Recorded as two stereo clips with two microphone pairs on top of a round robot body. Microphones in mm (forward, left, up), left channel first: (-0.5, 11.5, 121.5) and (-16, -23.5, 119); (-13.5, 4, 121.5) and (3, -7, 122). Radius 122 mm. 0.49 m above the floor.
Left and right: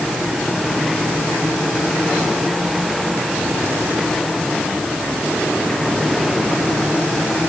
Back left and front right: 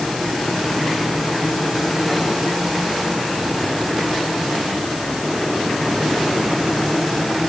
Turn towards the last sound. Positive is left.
No sound to turn to.